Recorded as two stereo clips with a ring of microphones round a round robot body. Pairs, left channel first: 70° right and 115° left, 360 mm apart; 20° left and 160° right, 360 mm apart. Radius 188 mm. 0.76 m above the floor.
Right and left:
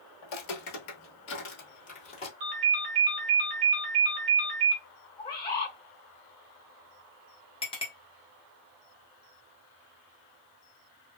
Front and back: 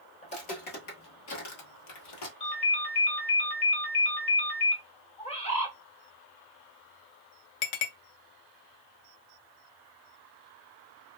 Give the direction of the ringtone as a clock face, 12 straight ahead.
9 o'clock.